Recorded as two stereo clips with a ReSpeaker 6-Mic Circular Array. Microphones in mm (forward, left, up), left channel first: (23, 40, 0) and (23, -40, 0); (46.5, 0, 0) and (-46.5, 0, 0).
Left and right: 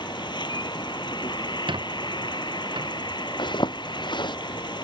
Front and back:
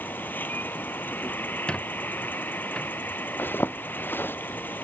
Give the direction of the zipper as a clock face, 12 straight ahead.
10 o'clock.